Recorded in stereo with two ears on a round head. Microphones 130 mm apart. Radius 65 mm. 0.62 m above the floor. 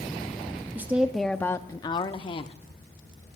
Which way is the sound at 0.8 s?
15° right (ahead or behind).